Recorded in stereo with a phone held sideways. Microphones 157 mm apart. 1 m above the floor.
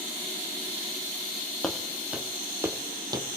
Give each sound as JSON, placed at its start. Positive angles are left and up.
{"t": 1.6, "sound": "footsteps", "side_deg": 0, "distance_m": 2.0}